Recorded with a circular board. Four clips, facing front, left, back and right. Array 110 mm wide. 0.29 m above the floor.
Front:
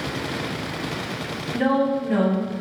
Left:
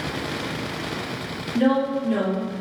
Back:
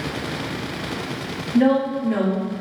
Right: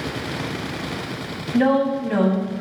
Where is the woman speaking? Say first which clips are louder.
Right 2 dB, back 3 dB; 80° right, 1.5 m.